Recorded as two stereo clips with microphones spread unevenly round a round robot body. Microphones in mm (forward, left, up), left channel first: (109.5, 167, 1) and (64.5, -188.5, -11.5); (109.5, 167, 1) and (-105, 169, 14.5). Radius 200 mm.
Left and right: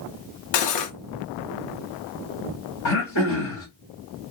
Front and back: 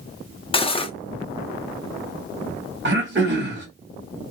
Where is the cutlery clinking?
70° left, 0.7 m.